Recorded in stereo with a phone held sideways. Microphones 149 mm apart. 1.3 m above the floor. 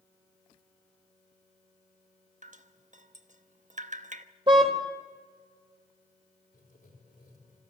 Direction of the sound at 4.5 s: 35° right (ahead or behind).